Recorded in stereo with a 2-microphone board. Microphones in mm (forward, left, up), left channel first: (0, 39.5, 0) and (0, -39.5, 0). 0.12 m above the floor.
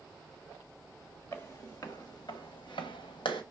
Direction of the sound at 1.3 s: 35° left (ahead or behind).